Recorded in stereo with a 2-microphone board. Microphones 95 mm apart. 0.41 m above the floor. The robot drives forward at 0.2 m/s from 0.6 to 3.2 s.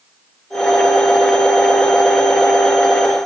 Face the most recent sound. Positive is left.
No sound to turn to.